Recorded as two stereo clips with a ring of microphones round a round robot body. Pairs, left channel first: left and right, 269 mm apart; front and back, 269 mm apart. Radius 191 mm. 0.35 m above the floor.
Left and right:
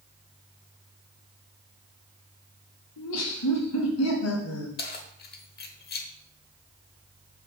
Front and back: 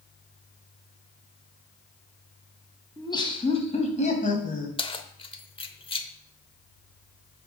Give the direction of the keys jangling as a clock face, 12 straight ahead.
10 o'clock.